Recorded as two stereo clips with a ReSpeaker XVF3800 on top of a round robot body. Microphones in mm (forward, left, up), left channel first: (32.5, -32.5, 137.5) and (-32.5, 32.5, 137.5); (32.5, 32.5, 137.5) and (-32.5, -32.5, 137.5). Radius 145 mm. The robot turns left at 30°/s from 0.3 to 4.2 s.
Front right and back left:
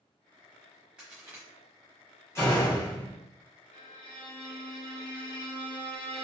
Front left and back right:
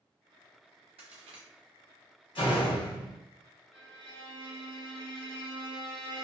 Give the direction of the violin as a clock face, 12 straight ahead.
1 o'clock.